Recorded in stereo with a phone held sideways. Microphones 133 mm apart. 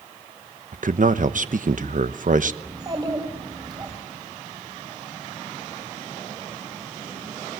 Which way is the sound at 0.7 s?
65° right (ahead or behind).